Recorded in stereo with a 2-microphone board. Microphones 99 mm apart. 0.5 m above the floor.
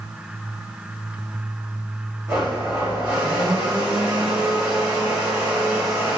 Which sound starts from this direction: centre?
A blender, at 2.3 s.